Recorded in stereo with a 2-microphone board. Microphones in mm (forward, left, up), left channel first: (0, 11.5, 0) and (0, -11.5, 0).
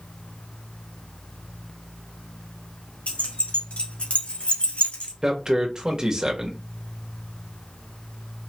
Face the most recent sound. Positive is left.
turn(degrees=-30)  # may be behind; listen again after turning